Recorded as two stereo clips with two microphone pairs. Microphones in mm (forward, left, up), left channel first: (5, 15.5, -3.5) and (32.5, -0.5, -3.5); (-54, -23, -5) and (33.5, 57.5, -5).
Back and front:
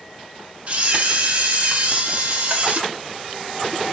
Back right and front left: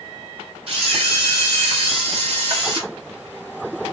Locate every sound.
0.7 s a camera shutter: 5° left, 2.5 m